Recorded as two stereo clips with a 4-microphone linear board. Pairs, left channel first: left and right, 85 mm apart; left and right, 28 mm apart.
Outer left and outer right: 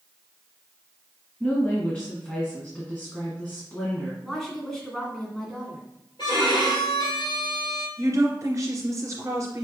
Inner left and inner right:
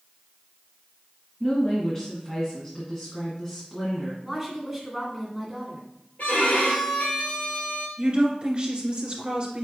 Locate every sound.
1.4 s a woman speaking: 15° left (ahead or behind), 1.7 m
4.2 s a woman speaking: 5° left (ahead or behind), 1.8 m
6.2 s a violin: 70° left (ahead or behind), 2.0 m
8.0 s a woman speaking: 35° right (ahead or behind), 2 m